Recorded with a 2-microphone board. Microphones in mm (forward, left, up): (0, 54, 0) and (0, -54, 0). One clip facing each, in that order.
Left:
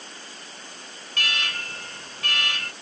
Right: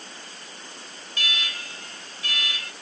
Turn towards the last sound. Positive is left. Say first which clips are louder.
# left 3 dB
turn(degrees=65)  # may be behind; listen again after turning